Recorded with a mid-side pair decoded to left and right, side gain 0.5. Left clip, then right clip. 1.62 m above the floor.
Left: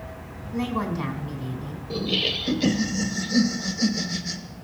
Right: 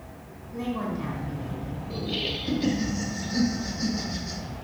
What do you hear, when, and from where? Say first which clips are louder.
0.5 s a woman speaking: left 3 dB; 60° left, 3.5 m
1.9 s laughter: left 6 dB; 60° left, 2.0 m